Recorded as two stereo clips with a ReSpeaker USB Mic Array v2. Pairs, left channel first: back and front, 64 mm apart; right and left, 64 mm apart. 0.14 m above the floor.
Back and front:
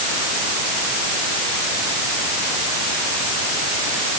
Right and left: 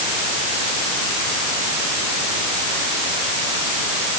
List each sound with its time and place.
Only background noise.